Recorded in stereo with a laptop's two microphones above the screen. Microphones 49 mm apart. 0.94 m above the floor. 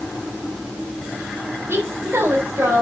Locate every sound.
1.7 s a woman speaking: 60° right (ahead or behind), 4 m